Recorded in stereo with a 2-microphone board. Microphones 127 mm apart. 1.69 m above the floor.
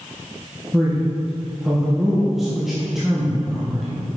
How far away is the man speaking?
About 1.1 m.